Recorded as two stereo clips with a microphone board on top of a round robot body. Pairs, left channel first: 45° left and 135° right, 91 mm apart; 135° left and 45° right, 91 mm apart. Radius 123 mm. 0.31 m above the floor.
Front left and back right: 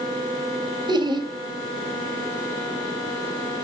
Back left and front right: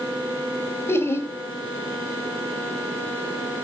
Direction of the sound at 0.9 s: 165° right.